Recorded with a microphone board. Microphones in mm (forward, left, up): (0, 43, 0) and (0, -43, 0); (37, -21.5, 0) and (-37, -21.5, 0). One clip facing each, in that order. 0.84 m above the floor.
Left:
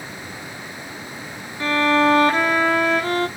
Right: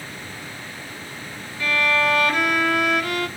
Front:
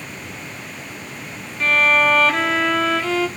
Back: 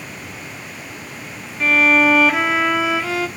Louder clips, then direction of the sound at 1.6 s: Left 4 dB, back 2 dB; 105° left.